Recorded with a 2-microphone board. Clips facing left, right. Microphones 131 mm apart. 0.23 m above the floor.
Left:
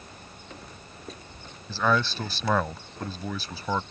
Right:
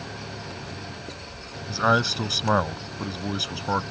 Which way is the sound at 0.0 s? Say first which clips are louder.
Right 10 dB; 85° right.